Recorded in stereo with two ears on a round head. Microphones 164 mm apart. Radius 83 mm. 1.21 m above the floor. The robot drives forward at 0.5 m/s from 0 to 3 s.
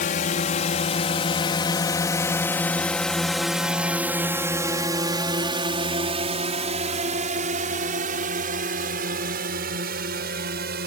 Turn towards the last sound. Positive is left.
turn(degrees=-60)  # may be behind; listen again after turning